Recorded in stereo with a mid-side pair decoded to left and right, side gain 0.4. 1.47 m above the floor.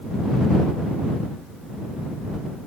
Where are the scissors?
I don't hear scissors.